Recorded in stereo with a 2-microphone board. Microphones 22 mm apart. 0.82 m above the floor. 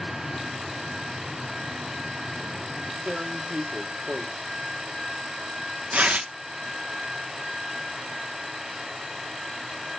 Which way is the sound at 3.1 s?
80° right.